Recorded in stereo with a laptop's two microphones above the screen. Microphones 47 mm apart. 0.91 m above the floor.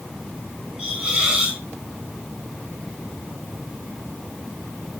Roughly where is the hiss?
Right.